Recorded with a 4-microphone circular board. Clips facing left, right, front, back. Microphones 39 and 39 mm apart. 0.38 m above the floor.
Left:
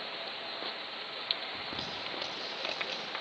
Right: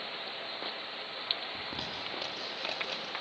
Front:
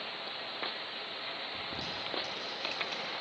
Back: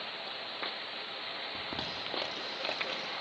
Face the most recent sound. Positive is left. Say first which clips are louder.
# even, back 1 dB
turn(degrees=175)